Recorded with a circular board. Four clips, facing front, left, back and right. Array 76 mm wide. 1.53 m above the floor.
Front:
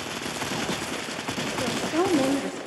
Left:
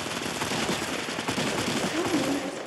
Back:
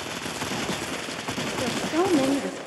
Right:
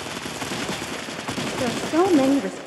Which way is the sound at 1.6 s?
95° right.